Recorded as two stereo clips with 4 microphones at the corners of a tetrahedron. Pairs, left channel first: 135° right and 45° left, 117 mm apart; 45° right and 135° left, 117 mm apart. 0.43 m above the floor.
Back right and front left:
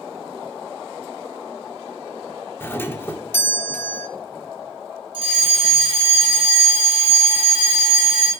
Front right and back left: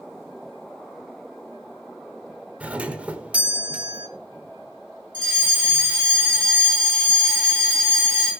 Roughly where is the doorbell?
Behind.